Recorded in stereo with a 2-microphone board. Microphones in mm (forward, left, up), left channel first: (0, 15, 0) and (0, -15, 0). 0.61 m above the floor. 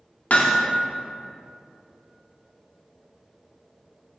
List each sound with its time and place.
0.3 s hammering: 50° left (ahead or behind), 0.7 m